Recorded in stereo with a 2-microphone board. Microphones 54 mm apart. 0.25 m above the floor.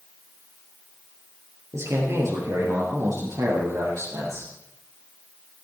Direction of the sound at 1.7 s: 60° right (ahead or behind).